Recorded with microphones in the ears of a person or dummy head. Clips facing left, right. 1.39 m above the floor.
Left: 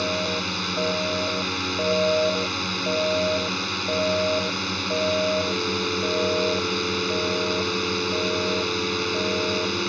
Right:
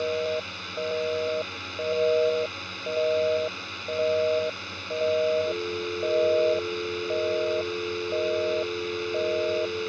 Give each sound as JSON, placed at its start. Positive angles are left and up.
{"t": 0.0, "sound": "a drone", "side_deg": 70}